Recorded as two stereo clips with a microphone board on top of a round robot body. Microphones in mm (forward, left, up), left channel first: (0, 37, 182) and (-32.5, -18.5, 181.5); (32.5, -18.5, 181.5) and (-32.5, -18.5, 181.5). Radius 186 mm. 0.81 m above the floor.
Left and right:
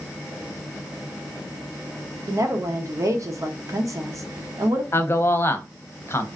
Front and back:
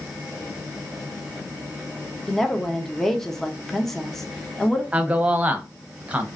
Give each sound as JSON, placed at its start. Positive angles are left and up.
{"t": 2.3, "sound": "a woman speaking", "azimuth_deg": -85, "distance_m": 0.8}
{"t": 4.9, "sound": "a man speaking", "azimuth_deg": 110, "distance_m": 0.7}